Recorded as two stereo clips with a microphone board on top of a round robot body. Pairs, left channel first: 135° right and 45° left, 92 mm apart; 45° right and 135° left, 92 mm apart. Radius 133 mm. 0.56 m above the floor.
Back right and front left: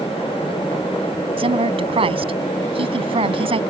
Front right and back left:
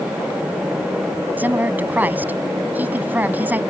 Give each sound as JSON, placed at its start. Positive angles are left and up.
{"t": 1.4, "sound": "a woman speaking", "azimuth_deg": 65}